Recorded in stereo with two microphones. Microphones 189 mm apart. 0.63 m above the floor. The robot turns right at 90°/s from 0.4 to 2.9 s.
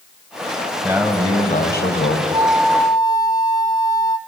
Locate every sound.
0.8 s a man speaking: 20° right, 3 m; by 2.2 s 105° left, 3 m
2.3 s a flute: 30° right, 0.9 m; by 4.2 s 20° left, 0.9 m